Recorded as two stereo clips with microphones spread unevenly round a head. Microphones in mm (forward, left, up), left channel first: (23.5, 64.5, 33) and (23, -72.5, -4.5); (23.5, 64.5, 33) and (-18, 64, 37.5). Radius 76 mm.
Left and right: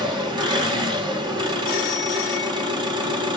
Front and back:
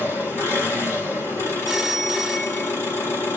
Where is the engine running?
25° right, 1.2 m.